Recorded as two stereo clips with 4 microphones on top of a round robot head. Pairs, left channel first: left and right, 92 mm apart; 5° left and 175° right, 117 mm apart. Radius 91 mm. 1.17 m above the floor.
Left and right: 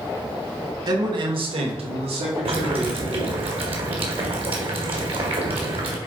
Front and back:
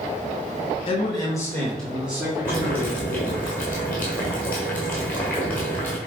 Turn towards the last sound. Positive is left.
turn(degrees=-75)